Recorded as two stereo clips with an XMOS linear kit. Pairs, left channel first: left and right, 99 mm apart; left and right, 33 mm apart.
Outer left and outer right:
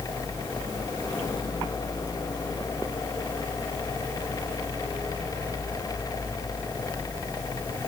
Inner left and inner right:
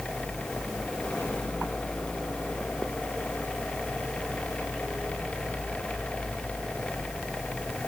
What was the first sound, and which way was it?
Only background noise.